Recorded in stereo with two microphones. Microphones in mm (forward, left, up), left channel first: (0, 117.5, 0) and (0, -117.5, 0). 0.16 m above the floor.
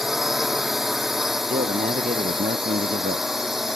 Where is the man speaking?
40° right (ahead or behind).